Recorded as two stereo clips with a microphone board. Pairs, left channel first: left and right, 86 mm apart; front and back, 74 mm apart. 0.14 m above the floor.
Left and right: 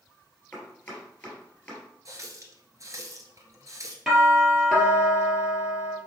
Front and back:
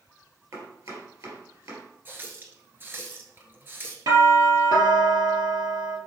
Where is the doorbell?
Straight behind, 3 m.